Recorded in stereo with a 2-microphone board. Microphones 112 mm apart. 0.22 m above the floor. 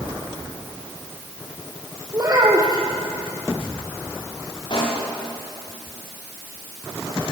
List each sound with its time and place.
2.1 s a child speaking: 35° right (ahead or behind), 4 m
4.7 s a pop: 45° left (ahead or behind), 7 m